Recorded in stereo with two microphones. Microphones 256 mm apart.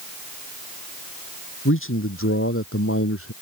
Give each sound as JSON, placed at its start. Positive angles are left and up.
{"t": 1.6, "sound": "a man speaking", "side_deg": 55}